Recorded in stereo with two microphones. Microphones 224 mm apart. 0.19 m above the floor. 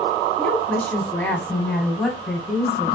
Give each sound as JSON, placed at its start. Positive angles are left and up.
{"t": 0.4, "sound": "a woman speaking", "side_deg": 5, "distance_m": 1.2}